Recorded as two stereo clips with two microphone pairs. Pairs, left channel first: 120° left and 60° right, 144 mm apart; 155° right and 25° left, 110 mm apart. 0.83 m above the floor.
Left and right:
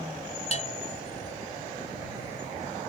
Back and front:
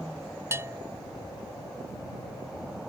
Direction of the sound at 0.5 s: 90° left.